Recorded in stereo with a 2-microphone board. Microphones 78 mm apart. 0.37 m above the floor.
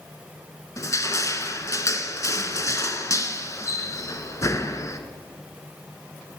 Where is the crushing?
40° left (ahead or behind), 0.7 m.